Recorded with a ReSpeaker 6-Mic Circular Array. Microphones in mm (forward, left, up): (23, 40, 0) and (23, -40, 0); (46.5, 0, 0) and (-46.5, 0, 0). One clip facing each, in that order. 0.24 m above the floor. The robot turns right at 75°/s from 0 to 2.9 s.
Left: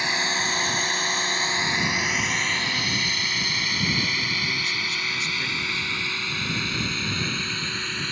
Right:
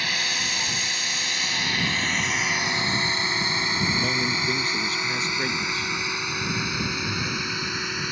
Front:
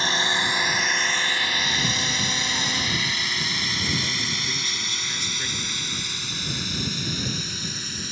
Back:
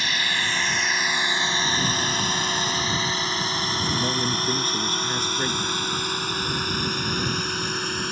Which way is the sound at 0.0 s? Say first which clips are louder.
Left 3 dB, front 3 dB; 35° left.